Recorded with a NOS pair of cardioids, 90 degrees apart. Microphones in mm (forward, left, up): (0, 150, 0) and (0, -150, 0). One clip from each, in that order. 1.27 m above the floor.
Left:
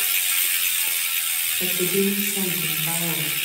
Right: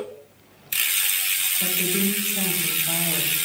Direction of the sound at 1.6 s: 50° left.